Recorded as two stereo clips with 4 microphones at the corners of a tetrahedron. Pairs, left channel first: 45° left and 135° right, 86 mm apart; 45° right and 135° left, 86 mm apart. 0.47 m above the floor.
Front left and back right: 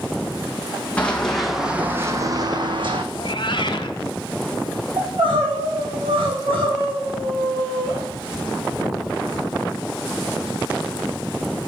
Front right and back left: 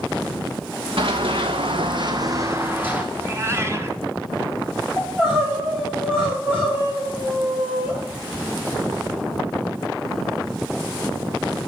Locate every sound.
1.0 s running footsteps: 120° left, 1.5 m; by 3.0 s 150° right, 1.4 m
3.1 s a cat meowing: 75° left, 1.2 m
5.0 s crying: 155° right, 6.5 m